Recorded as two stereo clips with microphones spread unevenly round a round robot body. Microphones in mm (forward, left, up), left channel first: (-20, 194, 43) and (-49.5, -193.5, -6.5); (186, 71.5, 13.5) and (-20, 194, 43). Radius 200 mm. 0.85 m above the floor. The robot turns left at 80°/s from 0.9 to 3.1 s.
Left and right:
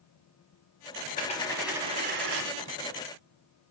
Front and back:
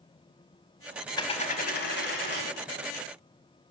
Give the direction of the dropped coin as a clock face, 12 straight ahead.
11 o'clock.